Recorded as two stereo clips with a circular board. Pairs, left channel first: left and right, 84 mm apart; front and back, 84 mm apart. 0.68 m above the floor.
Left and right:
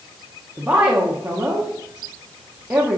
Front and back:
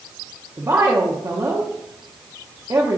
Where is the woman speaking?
155° right, 0.8 m.